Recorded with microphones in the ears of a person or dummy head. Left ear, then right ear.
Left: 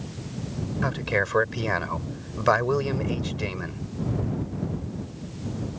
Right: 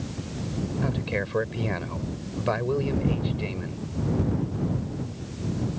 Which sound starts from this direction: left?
A man speaking, at 0.8 s.